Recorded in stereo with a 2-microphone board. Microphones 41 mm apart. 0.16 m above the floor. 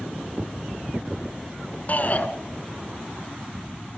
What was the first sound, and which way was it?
A shout, 40° left (ahead or behind).